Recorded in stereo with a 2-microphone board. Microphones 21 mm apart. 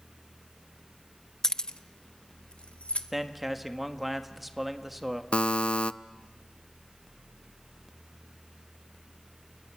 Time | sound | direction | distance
1.4 | keys jangling | 20° left (ahead or behind) | 0.5 m
3.1 | a man speaking | 5° right (ahead or behind) | 1.4 m
5.3 | a buzzer | 65° left (ahead or behind) | 0.5 m